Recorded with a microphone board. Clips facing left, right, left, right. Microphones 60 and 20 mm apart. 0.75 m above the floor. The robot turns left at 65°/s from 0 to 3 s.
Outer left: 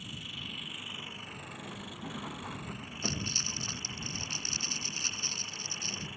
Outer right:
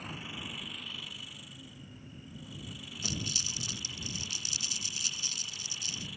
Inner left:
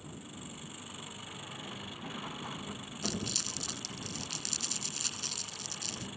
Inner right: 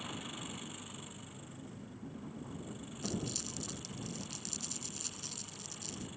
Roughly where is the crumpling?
Left.